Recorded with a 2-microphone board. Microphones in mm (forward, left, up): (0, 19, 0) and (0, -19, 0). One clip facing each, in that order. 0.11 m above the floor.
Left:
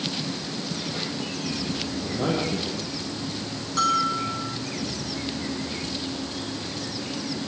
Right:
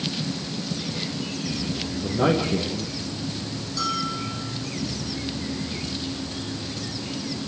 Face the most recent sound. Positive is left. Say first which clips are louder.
# left 5 dB
turn(degrees=50)  # may be behind; listen again after turning